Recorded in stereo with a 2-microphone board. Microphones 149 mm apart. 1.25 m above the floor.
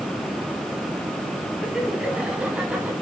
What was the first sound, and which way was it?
Laughter, 5° right (ahead or behind).